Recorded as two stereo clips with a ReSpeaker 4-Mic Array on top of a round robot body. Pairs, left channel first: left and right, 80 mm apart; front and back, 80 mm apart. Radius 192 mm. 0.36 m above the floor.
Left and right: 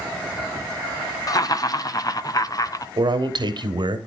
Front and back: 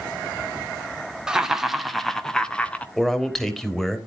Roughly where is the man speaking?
Right.